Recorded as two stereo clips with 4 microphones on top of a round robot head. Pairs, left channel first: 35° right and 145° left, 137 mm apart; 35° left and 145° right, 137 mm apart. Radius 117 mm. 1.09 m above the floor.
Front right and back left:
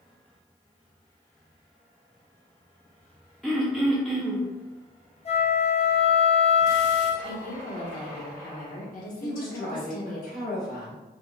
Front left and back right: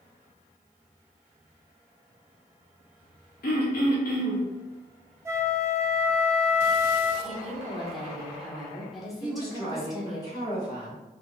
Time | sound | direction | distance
3.4 | throat clearing | 50° left | 0.6 m
5.2 | a flute | 75° right | 0.7 m
7.2 | a woman speaking | 55° right | 1.3 m
9.2 | a woman speaking | 25° right | 1.7 m